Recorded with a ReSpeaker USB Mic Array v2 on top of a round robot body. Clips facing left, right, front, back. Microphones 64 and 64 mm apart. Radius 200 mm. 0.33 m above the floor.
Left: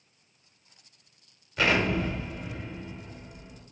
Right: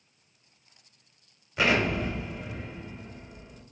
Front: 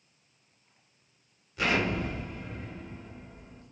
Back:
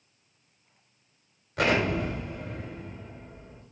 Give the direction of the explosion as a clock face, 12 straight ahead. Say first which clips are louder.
Even, back 3 dB; 5 o'clock.